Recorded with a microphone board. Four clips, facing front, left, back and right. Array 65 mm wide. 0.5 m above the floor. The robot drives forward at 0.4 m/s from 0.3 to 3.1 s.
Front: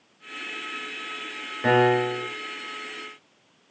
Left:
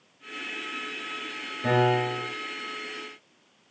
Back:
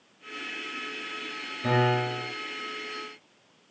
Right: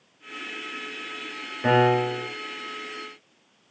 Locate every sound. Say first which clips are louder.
1.6 s a piano: right 3 dB, front 5 dB; 30° right, 7.5 m